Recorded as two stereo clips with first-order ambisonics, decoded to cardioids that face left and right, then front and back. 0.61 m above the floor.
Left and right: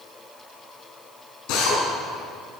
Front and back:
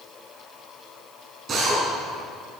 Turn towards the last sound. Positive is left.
turn(degrees=115)